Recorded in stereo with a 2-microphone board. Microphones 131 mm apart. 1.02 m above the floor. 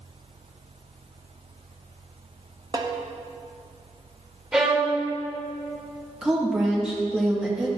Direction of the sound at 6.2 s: 5° right (ahead or behind).